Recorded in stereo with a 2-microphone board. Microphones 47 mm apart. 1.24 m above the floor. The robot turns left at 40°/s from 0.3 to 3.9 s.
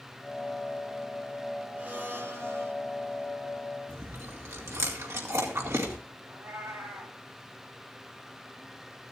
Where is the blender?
30° right, 2 m; by 2.7 s 65° right, 2 m.